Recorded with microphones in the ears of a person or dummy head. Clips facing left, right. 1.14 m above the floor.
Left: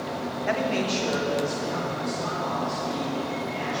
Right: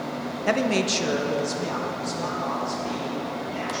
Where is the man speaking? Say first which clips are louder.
Right 3 dB; 45° right (ahead or behind), 0.6 m; by 3.8 s 75° right (ahead or behind), 4 m.